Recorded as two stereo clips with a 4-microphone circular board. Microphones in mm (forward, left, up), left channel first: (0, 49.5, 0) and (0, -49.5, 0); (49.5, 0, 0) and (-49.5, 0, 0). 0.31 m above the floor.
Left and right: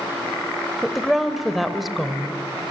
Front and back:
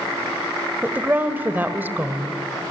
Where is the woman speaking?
175° right, 1.3 m.